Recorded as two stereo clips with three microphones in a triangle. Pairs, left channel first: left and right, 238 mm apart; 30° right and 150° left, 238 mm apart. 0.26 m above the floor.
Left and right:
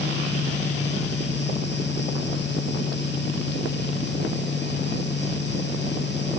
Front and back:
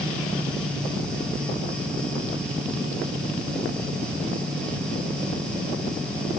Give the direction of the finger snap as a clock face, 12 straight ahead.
No finger snap in this recording.